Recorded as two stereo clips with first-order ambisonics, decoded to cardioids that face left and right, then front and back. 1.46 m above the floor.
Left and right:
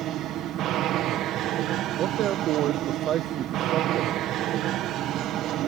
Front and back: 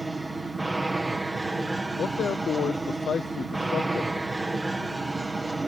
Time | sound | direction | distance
0.0 | an aircraft | 95° right | ?
2.0 | a man speaking | 55° right | ?